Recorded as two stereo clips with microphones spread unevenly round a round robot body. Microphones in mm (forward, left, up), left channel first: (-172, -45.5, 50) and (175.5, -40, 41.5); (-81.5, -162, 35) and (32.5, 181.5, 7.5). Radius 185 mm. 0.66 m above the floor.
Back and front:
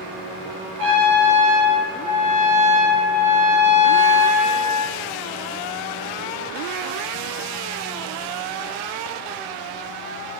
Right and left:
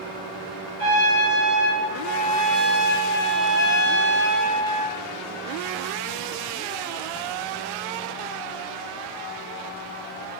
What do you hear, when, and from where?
0.8 s a trumpet: 50° right, 3.5 m